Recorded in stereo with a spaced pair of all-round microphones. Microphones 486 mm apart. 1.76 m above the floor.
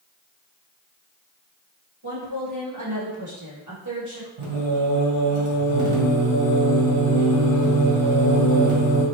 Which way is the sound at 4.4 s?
85° right.